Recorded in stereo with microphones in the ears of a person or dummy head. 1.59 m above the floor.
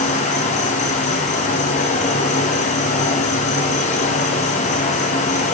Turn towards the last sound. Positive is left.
turn(degrees=40)  # may be behind; listen again after turning